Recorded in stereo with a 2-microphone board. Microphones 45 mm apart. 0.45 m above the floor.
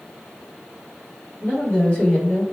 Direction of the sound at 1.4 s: 45° left (ahead or behind).